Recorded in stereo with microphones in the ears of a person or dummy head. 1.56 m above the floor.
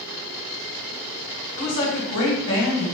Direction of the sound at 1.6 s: 60° left (ahead or behind).